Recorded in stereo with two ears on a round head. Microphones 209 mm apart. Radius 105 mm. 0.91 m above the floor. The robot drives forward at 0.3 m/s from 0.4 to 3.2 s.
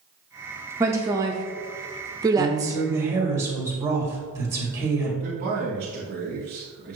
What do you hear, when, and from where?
0.8 s a woman speaking: 10° right (ahead or behind), 0.7 m; by 2.8 s 15° right (ahead or behind), 0.6 m
2.4 s a woman speaking: 15° right (ahead or behind), 1.8 m; by 5.1 s 10° right (ahead or behind), 2 m
5.2 s a man speaking: 45° right (ahead or behind), 2 m